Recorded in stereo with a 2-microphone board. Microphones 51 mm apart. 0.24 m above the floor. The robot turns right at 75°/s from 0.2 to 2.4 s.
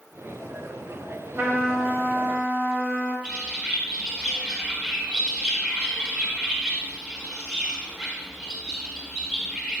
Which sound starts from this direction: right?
A bird, at 3.2 s.